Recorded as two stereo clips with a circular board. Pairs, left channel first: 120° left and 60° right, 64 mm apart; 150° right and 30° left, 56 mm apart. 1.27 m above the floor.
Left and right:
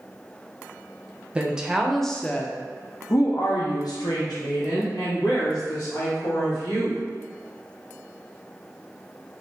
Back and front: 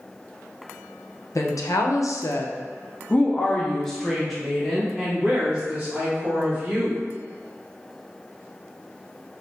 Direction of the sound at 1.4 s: 135° right.